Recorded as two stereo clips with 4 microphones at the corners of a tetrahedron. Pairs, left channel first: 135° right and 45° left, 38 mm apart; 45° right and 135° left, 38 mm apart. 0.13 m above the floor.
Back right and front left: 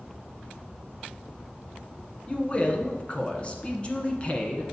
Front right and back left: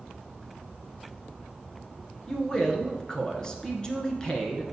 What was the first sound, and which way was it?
A man speaking, 100° right.